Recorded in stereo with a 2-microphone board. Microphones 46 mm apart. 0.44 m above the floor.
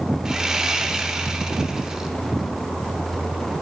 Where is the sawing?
15° right (ahead or behind), 0.6 m.